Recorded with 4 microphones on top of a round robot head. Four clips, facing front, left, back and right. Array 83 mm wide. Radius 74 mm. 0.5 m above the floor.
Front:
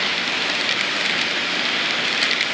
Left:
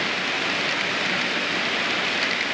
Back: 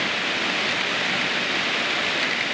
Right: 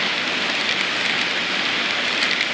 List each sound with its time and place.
Only background noise.